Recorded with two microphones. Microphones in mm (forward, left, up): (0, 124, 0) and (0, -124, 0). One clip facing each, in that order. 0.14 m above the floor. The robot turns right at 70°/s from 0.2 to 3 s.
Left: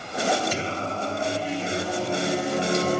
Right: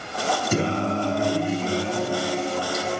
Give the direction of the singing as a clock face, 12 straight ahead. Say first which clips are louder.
Right 7 dB; 4 o'clock.